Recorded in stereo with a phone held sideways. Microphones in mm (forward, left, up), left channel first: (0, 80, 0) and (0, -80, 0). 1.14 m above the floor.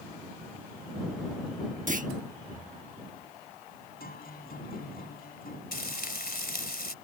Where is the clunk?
55° right (ahead or behind).